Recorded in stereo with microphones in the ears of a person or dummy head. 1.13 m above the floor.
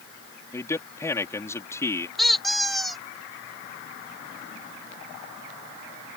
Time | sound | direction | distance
0.5 | a man speaking | 15° left (ahead or behind) | ?
2.2 | a squeak | centre (ahead or behind) | ?